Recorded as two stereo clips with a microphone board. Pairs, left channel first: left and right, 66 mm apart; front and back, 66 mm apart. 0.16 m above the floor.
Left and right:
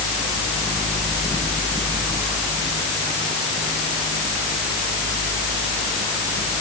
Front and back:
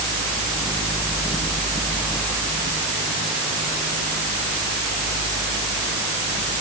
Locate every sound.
Only background noise.